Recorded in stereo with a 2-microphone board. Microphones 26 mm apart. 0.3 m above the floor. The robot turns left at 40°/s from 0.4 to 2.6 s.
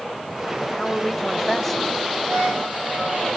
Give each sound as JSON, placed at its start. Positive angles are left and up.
{"t": 0.6, "sound": "a man speaking", "side_deg": 20, "distance_m": 1.0}
{"t": 2.2, "sound": "a violin", "side_deg": -70, "distance_m": 6.0}